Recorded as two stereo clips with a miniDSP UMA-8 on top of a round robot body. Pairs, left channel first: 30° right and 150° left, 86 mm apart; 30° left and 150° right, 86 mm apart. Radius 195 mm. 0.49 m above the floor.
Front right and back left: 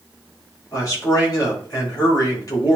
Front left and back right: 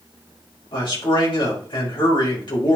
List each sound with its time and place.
0.7 s a man speaking: 20° left, 4.5 m